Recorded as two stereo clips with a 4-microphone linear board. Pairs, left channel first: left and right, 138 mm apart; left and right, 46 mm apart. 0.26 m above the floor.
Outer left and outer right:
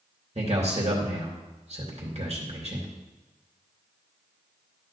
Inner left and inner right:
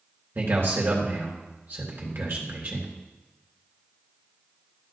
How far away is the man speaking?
About 3 m.